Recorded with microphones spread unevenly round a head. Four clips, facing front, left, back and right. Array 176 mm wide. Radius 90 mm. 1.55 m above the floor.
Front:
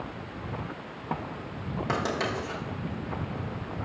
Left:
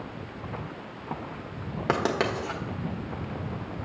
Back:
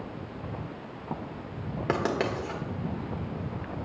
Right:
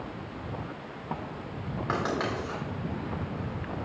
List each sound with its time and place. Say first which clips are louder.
1.9 s writing: left 4 dB, back 2 dB; 130° left, 1.3 m